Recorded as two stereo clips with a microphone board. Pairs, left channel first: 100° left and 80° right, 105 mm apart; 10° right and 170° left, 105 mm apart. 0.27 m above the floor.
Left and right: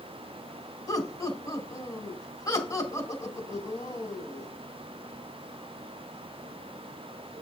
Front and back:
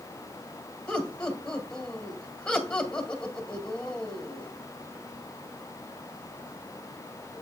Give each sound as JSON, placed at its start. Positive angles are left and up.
{"t": 0.9, "sound": "laughter", "azimuth_deg": 65, "distance_m": 1.8}